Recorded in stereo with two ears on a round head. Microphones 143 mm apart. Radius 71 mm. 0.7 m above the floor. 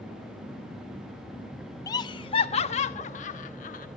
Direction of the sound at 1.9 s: 20° left (ahead or behind).